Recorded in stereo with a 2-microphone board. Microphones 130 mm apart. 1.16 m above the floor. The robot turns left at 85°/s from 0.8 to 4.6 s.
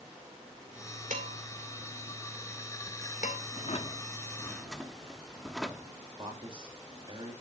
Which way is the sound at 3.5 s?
90° left.